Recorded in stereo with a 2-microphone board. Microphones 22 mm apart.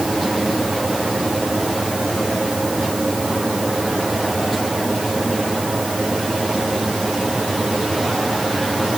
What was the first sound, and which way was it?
Only background noise.